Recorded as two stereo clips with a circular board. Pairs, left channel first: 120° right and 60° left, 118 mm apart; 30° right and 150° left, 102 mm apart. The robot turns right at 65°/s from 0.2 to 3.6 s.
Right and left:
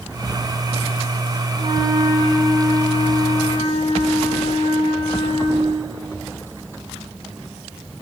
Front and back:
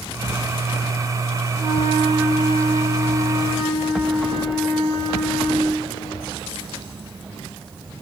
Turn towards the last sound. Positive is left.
turn(degrees=-130)